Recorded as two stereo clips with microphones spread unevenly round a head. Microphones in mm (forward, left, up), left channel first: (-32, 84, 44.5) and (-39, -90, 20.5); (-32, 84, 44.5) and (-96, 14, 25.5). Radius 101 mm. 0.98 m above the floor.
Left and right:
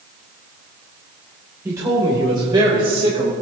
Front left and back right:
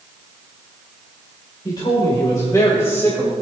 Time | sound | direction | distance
1.6 | a man speaking | 15° right | 4 m